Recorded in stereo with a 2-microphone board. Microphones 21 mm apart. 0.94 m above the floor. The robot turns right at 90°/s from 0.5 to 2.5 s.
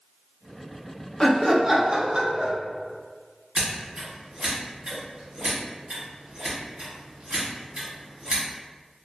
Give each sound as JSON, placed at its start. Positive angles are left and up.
{"t": 1.2, "sound": "laughter", "azimuth_deg": 145, "distance_m": 0.5}
{"t": 3.5, "sound": "scissors", "side_deg": -45, "distance_m": 1.2}